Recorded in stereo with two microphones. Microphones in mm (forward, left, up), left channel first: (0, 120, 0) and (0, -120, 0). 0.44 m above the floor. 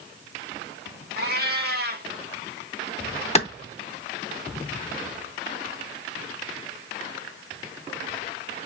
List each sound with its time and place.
1.2 s a cat meowing: 45° right (ahead or behind), 0.8 m
3.4 s a clap: 30° left (ahead or behind), 0.7 m